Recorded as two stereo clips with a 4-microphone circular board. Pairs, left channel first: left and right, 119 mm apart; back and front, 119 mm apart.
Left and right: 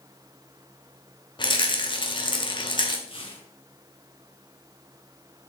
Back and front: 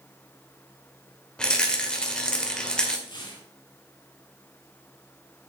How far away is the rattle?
About 1.5 m.